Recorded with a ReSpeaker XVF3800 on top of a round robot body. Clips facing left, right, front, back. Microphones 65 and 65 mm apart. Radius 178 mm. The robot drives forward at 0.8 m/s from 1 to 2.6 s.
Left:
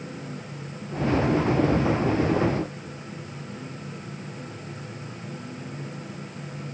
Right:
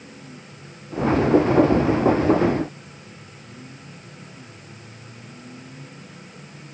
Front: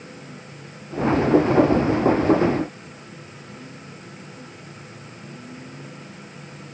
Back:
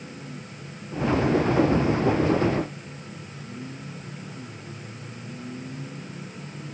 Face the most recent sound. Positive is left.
No sound to turn to.